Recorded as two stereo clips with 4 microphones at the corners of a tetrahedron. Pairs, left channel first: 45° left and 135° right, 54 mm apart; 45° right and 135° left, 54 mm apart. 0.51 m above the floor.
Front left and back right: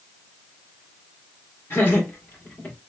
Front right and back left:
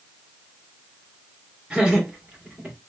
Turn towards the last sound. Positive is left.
turn(degrees=75)